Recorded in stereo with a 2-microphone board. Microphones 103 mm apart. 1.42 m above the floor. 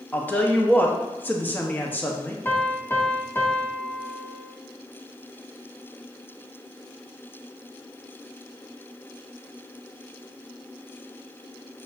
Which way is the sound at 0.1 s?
15° left (ahead or behind).